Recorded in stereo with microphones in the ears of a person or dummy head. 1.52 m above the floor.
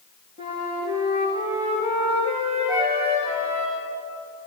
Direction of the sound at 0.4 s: 25° right (ahead or behind).